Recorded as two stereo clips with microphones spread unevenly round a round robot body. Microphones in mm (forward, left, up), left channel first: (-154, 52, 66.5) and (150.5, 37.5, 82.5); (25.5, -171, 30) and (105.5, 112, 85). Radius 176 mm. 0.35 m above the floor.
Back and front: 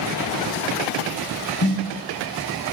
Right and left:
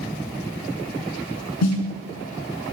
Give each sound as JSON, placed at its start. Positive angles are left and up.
{"t": 1.6, "sound": "a snare drum", "azimuth_deg": -135, "distance_m": 3.5}